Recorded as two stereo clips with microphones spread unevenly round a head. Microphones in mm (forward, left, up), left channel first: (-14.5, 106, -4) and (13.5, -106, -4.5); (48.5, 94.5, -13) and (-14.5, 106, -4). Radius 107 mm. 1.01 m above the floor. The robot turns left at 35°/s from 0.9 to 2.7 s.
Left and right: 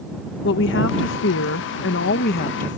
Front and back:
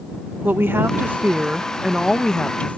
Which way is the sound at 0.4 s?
110° left.